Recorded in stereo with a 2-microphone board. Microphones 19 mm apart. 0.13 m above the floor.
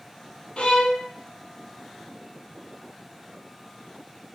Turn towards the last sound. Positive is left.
turn(degrees=60)  # may be behind; listen again after turning